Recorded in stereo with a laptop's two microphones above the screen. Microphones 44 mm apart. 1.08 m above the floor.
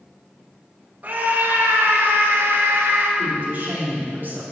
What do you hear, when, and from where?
1.0 s a scream: 40° right (ahead or behind), 1.3 m; by 3.1 s 80° right, 1.9 m
3.2 s a woman speaking: 50° right (ahead or behind), 2.5 m